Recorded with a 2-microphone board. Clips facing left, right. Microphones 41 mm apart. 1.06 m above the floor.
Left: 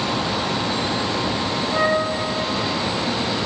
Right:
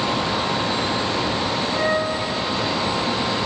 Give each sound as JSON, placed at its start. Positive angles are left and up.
{"t": 1.7, "sound": "a flute", "side_deg": 30, "distance_m": 6.0}